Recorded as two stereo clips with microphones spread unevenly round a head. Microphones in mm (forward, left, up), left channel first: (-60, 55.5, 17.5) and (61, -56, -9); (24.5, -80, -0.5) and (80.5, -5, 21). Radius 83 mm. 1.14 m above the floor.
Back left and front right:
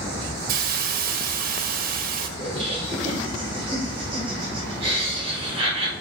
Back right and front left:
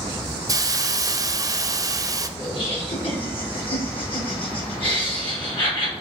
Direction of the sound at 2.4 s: 105° right.